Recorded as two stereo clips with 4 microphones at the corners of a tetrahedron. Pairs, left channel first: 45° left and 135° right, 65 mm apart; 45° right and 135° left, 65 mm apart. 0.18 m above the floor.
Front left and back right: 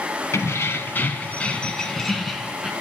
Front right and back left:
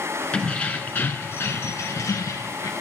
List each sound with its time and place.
0.3 s keys jangling: 20° left, 1.2 m; by 2.7 s 50° right, 1.4 m